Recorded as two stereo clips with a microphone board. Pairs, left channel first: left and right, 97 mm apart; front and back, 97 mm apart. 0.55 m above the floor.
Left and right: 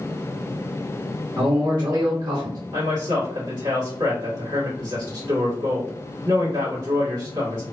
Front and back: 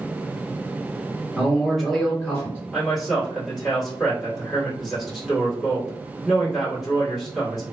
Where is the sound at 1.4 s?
100° right, 1.5 m; by 2.6 s 70° right, 1.8 m.